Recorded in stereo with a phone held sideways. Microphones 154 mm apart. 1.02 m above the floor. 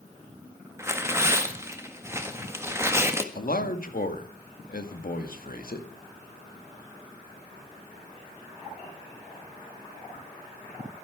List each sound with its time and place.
0.8 s tearing paper: 15° right (ahead or behind), 1.6 m
3.4 s a man speaking: 70° left (ahead or behind), 2.0 m